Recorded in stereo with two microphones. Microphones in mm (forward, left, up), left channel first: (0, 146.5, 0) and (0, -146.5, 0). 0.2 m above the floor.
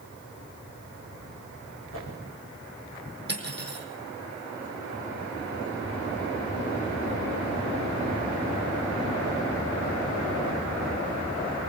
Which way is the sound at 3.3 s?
35° right (ahead or behind).